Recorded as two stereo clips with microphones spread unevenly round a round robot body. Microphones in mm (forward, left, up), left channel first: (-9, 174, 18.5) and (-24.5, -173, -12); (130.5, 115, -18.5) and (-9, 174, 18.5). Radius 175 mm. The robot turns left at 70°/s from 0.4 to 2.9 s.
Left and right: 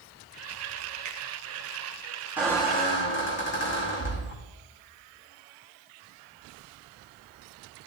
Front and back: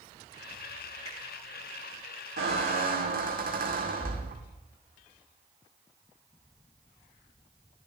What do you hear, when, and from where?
1.1 s a finger snap: 125° right, 2.5 m; by 1.2 s 130° right, 2.5 m
2.4 s a squeak: straight behind, 2.5 m; by 4.4 s 145° left, 2.5 m